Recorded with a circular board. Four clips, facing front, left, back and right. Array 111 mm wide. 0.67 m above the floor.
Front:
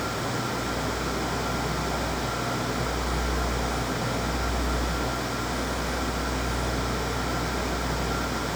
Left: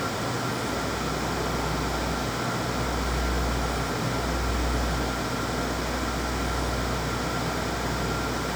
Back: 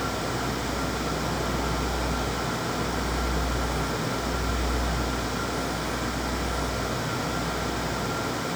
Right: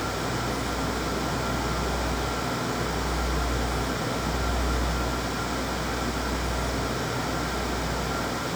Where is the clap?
No clap in this recording.